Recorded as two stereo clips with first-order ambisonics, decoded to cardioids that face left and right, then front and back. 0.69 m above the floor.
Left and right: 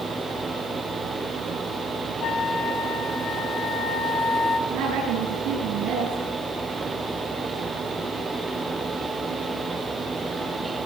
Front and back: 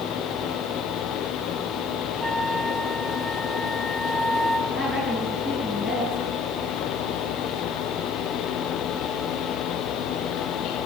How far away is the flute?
About 0.8 m.